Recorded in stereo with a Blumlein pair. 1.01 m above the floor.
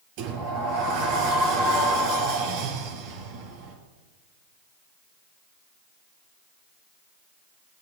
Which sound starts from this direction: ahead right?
A sliding door, at 0.2 s.